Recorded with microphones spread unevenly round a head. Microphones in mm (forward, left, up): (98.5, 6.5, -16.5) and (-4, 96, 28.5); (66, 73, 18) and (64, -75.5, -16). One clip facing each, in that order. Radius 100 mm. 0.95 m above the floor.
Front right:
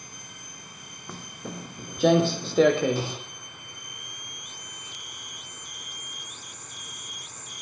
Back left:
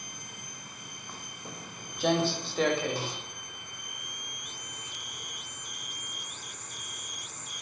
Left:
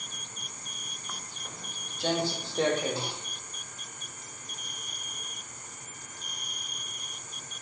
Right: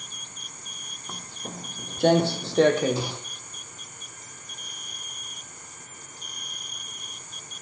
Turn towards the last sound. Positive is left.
turn(degrees=-90)